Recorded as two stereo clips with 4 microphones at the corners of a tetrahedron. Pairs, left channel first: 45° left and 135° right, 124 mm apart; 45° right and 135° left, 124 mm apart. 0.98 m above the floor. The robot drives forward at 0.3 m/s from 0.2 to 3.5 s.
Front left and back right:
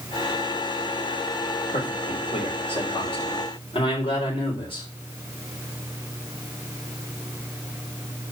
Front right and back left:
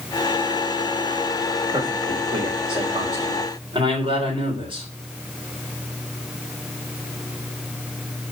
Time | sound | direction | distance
1.7 | a man speaking | 80° left | 4 m